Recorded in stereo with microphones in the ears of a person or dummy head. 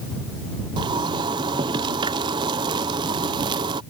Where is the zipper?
20° right (ahead or behind).